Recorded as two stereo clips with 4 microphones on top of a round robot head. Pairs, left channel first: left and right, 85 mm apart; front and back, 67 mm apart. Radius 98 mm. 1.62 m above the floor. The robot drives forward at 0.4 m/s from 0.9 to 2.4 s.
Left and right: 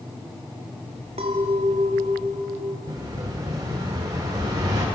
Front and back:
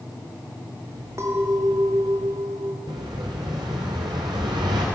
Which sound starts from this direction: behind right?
An explosion, at 2.9 s.